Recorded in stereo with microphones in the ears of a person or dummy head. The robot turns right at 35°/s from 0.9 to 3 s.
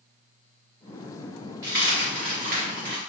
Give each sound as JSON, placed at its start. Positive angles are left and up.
{"t": 1.6, "sound": "a dropped coin", "azimuth_deg": -165, "distance_m": 2.5}